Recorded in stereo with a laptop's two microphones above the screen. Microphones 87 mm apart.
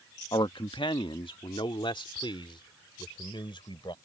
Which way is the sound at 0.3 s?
70° left (ahead or behind).